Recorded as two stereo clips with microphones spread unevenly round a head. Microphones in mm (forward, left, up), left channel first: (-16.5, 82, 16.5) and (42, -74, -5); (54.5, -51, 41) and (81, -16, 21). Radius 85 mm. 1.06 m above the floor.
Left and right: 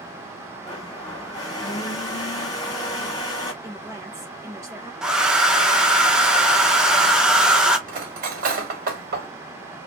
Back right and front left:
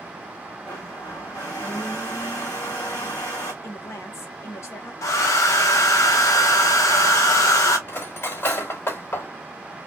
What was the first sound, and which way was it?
A blender, straight behind.